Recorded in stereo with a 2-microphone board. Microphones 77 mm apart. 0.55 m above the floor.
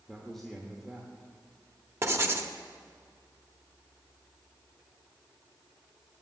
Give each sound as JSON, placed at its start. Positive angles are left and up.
{"t": 0.1, "sound": "a man speaking", "side_deg": 5, "distance_m": 1.2}
{"t": 2.0, "sound": "writing", "side_deg": -35, "distance_m": 0.9}